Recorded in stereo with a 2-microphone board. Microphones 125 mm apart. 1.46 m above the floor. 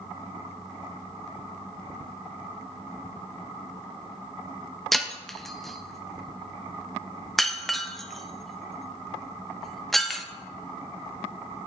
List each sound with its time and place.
4.9 s breaking glass: centre (ahead or behind), 0.7 m